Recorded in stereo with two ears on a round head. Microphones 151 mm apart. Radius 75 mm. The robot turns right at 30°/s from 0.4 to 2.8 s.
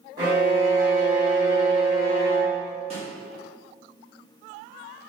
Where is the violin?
40° right, 1.3 m; by 2.7 s 30° left, 1.3 m.